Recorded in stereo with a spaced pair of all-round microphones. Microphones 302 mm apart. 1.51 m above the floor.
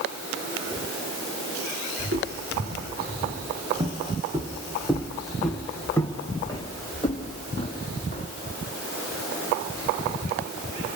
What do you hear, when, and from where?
2.0 s footsteps: 45° right (ahead or behind), 2.5 m; by 8.3 s 25° left (ahead or behind), 4 m